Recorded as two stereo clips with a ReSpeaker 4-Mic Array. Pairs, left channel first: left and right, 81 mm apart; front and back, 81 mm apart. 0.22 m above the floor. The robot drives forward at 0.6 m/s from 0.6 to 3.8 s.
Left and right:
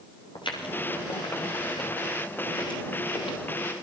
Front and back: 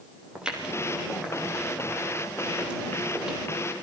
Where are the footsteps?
100° left, 7 m; by 3.5 s 105° left, 9.5 m.